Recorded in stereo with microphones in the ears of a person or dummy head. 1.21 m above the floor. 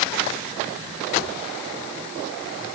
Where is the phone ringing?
I don't hear a phone ringing.